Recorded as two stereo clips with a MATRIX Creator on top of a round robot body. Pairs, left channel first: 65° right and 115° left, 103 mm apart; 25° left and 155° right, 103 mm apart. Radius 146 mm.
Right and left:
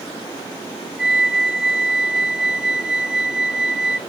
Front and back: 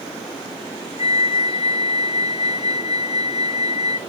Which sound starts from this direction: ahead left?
A flute, at 1.0 s.